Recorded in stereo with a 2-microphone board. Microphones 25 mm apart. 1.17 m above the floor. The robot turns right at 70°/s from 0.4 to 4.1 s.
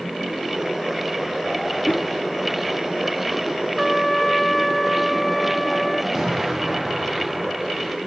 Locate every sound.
1.9 s a whoosh: 75° left (ahead or behind), 0.7 m; by 2.1 s 85° left, 0.7 m
3.8 s a trumpet: 15° right (ahead or behind), 0.5 m; by 6.0 s 5° left (ahead or behind), 0.5 m
6.1 s an explosion: 15° right (ahead or behind), 2.0 m